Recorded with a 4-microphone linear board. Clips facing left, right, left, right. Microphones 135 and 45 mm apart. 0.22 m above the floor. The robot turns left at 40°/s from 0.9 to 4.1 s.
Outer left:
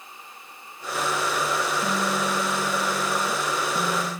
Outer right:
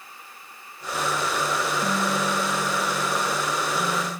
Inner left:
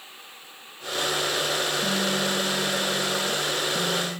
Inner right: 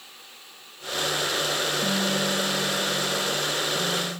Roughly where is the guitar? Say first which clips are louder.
Even, even; behind.